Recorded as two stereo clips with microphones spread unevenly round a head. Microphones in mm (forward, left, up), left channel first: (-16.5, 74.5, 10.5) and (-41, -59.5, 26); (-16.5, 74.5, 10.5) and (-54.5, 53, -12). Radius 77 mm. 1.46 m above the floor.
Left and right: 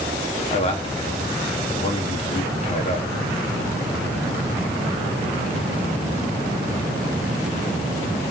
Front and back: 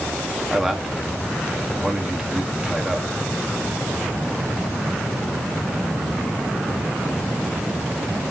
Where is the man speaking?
125° left, 2.5 m.